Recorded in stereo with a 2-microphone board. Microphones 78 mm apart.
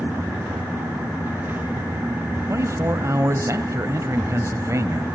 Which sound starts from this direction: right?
A man speaking, at 2.5 s.